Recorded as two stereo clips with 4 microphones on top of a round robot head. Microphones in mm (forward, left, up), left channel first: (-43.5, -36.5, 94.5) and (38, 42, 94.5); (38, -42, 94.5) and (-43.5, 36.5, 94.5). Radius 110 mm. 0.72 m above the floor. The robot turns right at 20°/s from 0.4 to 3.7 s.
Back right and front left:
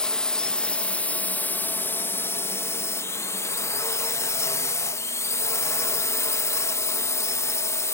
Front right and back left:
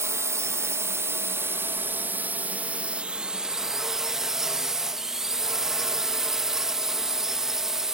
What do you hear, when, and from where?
0.0 s a drone: 150° left; by 8.0 s 145° right